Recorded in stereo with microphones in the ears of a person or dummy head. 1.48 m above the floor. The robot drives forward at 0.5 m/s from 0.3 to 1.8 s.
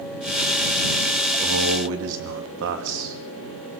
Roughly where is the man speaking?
Right.